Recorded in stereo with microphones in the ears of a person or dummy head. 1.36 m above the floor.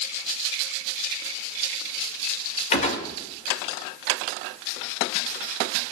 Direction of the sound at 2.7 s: 45° left (ahead or behind).